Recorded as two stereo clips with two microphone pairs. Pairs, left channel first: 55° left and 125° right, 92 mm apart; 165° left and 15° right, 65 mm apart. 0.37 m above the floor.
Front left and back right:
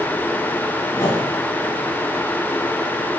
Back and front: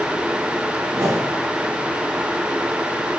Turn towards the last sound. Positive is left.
turn(degrees=0)